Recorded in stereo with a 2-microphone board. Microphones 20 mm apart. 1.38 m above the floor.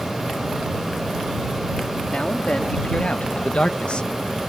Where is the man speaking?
75° left (ahead or behind); by 4.1 s 55° left (ahead or behind).